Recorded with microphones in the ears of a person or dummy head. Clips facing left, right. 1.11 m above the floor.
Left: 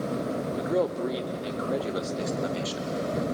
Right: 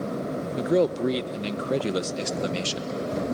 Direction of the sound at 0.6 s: 30° right (ahead or behind).